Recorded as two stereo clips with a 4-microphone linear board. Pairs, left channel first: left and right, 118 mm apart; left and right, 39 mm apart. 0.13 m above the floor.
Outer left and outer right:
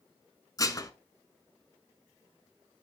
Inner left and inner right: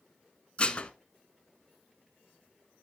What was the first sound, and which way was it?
Dishes clattering, 30° left (ahead or behind).